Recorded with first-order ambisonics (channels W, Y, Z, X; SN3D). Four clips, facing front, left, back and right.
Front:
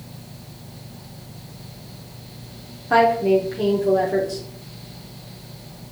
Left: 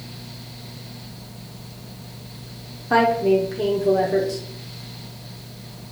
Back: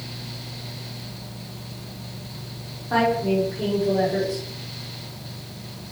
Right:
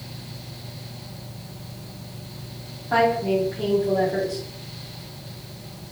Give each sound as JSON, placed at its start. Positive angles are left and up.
{"t": 2.9, "sound": "a woman speaking", "azimuth_deg": 50, "distance_m": 0.9}